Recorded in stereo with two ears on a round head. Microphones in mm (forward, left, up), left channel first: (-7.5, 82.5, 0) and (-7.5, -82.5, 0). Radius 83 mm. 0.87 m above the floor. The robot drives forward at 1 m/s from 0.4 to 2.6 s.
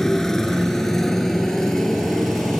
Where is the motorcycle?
Centre (ahead or behind).